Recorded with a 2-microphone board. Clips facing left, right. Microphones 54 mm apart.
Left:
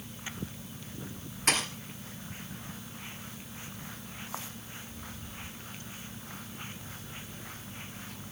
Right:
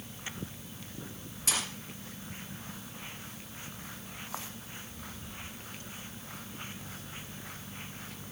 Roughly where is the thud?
Left.